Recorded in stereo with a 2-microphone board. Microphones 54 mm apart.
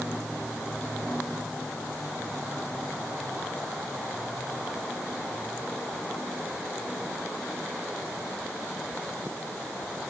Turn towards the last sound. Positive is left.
No sound to turn to.